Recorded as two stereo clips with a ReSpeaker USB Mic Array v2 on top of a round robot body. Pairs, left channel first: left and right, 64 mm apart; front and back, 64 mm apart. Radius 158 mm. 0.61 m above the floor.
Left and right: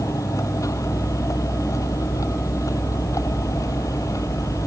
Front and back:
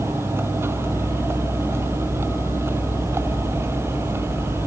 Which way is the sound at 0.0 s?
125° left.